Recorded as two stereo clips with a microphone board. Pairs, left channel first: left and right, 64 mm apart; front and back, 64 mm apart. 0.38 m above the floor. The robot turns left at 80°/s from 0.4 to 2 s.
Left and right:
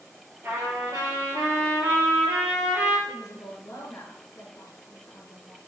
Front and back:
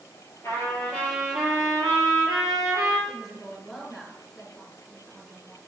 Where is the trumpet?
35° right, 3.5 m; by 3.0 s 160° right, 3.5 m.